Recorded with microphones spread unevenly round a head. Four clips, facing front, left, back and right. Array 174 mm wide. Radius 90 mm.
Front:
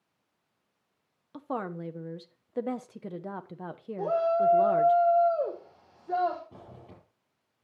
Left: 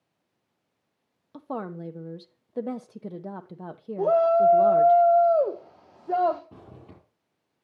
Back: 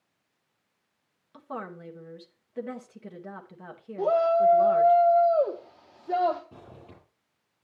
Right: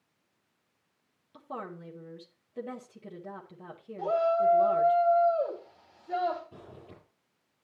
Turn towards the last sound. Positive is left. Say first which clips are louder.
# left 1 dB, back 1 dB
turn(degrees=100)